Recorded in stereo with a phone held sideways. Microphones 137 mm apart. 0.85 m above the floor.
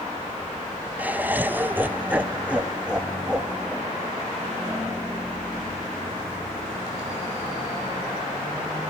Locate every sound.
1.0 s laughter: 10° right (ahead or behind), 0.6 m; by 5.3 s 5° right (ahead or behind), 2 m